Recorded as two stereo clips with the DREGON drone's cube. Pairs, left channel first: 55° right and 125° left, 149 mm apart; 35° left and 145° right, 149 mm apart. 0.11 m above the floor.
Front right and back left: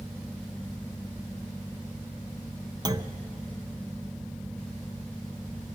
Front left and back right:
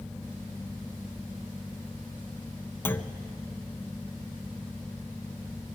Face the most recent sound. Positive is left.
turn(degrees=95)